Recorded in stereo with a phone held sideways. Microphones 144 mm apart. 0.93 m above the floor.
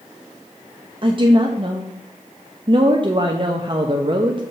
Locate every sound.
1.0 s a woman speaking: 40° right (ahead or behind), 0.6 m